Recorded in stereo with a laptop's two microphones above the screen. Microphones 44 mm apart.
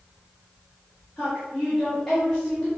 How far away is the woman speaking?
About 1.8 m.